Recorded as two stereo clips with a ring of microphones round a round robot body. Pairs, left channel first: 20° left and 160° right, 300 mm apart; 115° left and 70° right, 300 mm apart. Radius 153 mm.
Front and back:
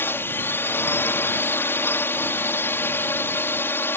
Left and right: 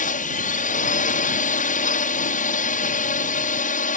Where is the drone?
95° left.